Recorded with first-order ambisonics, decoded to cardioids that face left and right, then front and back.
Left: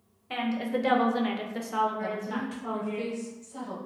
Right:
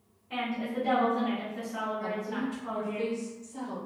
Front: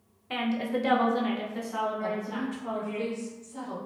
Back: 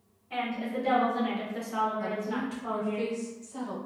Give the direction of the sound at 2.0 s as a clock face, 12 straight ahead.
7 o'clock.